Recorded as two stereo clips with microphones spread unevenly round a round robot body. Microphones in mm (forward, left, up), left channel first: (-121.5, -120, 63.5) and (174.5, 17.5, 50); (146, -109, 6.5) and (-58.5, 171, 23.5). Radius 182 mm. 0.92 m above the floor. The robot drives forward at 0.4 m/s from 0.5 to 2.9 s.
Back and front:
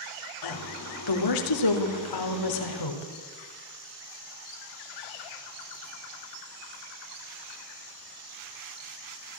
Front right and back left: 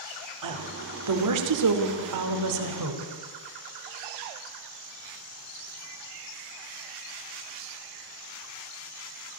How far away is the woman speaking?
About 2.5 m.